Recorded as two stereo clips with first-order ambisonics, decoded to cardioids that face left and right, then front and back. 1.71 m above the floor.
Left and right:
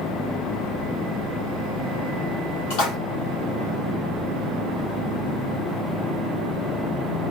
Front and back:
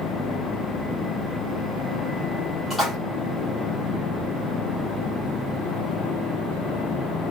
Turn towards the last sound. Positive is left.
turn(degrees=85)